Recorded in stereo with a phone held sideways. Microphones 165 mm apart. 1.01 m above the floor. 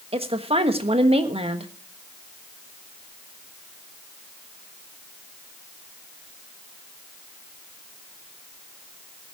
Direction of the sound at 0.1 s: 35° right (ahead or behind).